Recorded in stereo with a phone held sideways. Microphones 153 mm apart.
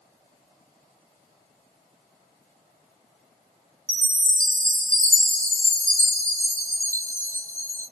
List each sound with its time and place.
3.9 s a chime: 60° right (ahead or behind), 1.0 m